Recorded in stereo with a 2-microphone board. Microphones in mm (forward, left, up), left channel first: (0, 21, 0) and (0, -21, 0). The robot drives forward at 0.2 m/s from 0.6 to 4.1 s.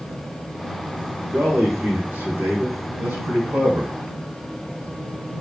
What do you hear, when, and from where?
1.3 s a man speaking: 70° right (ahead or behind), 2.5 m; by 4.0 s 80° right, 2.5 m